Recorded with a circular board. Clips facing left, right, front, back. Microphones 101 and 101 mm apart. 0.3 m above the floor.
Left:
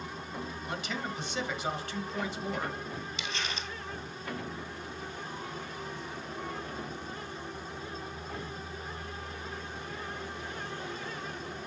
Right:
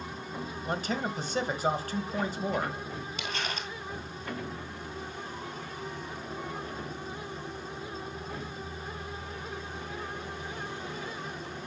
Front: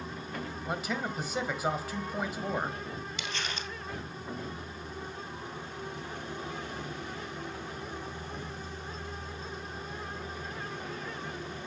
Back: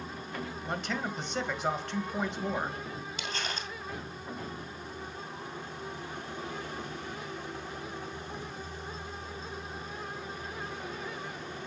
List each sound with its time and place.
0.7 s a man speaking: 80° right, 1.3 m
3.2 s crumpling: 130° right, 1.9 m